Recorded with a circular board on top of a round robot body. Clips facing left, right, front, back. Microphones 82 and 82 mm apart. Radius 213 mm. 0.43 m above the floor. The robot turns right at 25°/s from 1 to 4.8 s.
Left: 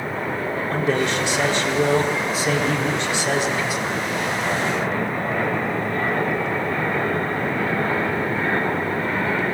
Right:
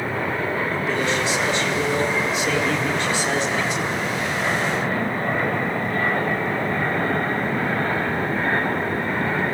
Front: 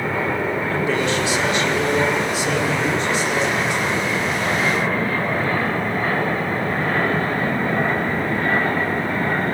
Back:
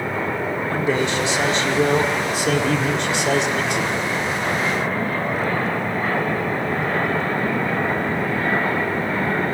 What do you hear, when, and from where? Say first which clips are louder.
0.7 s a man speaking: left 2 dB, back 2 dB; 110° left, 4.5 m; by 3.9 s straight behind, 4.5 m